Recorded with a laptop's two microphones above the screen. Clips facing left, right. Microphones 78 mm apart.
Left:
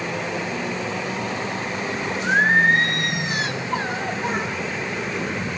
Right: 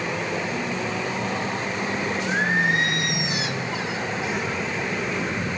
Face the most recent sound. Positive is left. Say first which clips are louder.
# left 7 dB
turn(degrees=45)  # may be behind; listen again after turning